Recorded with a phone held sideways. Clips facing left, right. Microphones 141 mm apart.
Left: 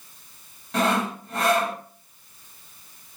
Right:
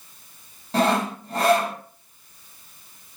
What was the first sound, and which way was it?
Sawing, 35° right (ahead or behind).